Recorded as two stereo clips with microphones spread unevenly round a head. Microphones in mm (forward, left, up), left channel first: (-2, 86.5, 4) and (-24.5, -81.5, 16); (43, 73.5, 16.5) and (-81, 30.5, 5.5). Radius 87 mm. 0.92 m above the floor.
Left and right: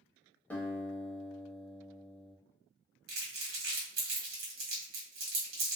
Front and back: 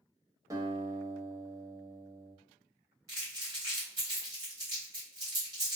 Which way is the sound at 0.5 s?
160° left.